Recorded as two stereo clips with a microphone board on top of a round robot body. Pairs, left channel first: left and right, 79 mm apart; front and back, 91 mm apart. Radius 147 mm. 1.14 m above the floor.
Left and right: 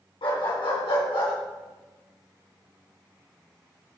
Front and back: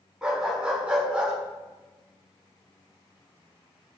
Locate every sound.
0.2 s a dog barking: 100° left, 4 m; by 1.3 s 105° left, 5 m